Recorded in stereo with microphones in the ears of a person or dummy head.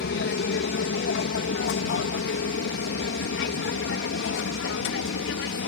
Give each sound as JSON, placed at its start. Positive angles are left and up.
{"t": 0.0, "sound": "an aircraft", "side_deg": 60}